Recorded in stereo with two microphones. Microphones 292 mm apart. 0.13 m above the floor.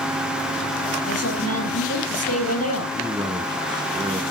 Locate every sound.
1.1 s a woman speaking: 55° left (ahead or behind), 4 m
2.9 s a man speaking: 15° right (ahead or behind), 1.1 m